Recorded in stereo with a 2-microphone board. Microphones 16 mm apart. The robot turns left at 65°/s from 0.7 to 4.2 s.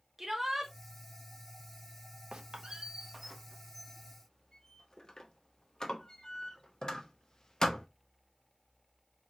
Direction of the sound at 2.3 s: 75° right (ahead or behind).